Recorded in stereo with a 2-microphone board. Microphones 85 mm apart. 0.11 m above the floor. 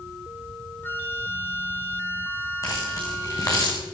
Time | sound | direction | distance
0.8 | a flute | 25° left (ahead or behind) | 2.5 m
2.6 | keys jangling | 45° left (ahead or behind) | 6 m